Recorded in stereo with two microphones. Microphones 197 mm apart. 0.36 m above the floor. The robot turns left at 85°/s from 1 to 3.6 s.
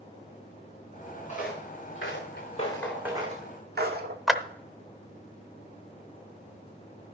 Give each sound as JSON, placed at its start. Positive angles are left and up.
{"t": 1.3, "sound": "footsteps", "side_deg": 40, "distance_m": 3.5}
{"t": 4.3, "sound": "a clap", "side_deg": 0, "distance_m": 0.7}